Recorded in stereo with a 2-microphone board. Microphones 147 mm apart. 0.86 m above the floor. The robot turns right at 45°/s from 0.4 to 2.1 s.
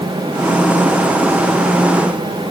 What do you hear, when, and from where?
Only background noise.